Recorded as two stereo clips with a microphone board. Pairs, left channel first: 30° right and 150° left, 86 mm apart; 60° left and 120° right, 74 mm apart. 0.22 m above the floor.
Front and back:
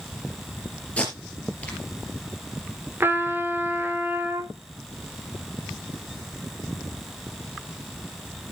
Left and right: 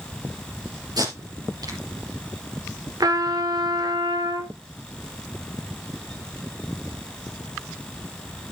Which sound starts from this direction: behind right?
A trumpet, at 3.0 s.